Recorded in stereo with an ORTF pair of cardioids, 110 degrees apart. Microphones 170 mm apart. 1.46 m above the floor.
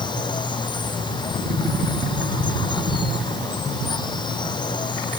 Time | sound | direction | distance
0.0 | running water | 25° left | ?